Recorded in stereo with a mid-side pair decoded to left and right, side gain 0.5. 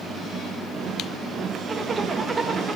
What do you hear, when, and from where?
1.7 s a zipper: 30° right, 0.8 m